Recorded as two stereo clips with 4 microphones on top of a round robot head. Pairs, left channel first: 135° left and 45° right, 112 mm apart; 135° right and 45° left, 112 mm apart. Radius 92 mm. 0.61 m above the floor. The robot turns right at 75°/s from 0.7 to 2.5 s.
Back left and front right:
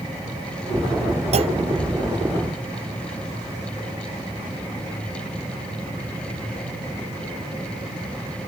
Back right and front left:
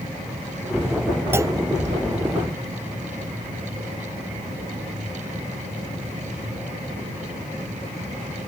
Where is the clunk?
25° right; by 1.6 s 5° right.